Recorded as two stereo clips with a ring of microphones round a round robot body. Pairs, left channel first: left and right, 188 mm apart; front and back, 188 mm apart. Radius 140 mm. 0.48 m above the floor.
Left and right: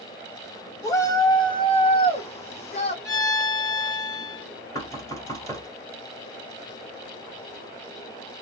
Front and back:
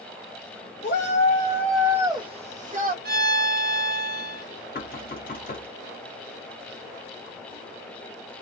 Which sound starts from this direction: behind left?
A violin, at 3.0 s.